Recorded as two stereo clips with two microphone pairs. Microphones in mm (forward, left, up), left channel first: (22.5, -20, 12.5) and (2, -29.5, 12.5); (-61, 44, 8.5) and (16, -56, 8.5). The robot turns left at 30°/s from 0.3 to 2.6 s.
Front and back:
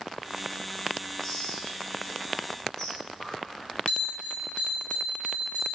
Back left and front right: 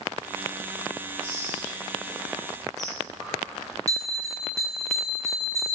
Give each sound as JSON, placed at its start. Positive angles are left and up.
{"t": 1.2, "sound": "whispering", "azimuth_deg": 90, "distance_m": 0.7}
{"t": 3.9, "sound": "a bell", "azimuth_deg": 10, "distance_m": 0.8}